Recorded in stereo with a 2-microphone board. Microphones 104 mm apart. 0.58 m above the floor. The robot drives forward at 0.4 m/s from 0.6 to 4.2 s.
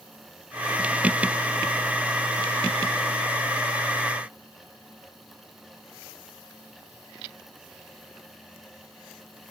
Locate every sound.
Only background noise.